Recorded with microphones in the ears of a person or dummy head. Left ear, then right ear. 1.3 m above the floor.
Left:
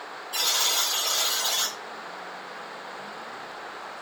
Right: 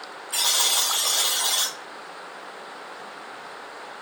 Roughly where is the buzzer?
Right.